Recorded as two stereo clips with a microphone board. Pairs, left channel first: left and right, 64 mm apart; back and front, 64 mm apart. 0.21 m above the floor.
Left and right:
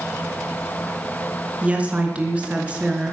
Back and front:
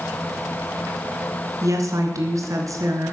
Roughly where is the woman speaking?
Ahead.